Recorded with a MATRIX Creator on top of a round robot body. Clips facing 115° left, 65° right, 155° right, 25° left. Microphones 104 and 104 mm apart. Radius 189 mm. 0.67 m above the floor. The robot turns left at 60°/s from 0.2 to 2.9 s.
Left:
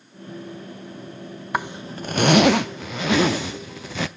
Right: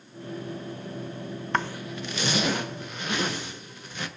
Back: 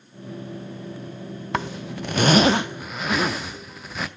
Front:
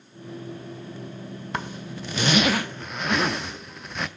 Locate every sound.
1.5 s a zipper: 165° right, 0.5 m; by 4.1 s 115° left, 0.5 m